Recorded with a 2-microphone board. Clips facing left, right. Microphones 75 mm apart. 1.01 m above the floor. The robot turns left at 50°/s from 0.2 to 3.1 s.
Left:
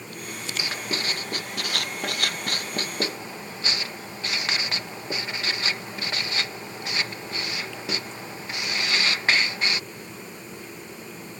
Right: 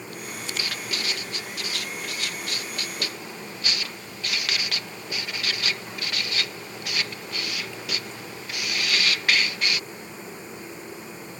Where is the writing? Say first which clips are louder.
Left 3 dB; 20° left (ahead or behind); by 9.8 s 30° left (ahead or behind).